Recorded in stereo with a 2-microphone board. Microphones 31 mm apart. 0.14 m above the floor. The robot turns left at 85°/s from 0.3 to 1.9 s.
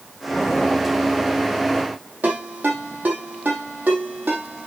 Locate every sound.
2.2 s a ringtone: 70° right (ahead or behind), 3.5 m